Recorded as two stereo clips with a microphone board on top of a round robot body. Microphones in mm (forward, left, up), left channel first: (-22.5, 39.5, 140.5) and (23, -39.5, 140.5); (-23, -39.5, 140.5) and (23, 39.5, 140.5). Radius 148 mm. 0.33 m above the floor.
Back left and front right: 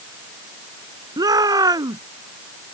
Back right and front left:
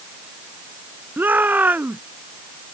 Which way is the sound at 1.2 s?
10° right.